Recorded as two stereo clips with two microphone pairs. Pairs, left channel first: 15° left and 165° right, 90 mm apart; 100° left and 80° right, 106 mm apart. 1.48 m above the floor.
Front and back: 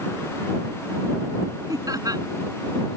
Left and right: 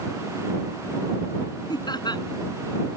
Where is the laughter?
145° left.